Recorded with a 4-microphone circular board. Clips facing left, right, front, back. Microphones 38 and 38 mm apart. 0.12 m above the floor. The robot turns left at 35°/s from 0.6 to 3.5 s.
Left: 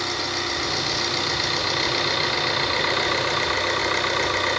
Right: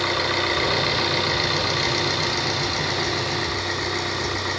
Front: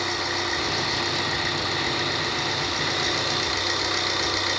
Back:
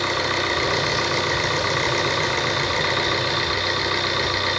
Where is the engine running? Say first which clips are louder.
Right 4 dB, back 4 dB; 150° right, 5.5 m; by 4.6 s 110° left, 5.5 m.